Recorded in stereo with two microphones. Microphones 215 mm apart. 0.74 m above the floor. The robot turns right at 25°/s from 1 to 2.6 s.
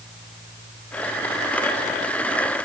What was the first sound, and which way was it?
Only background noise.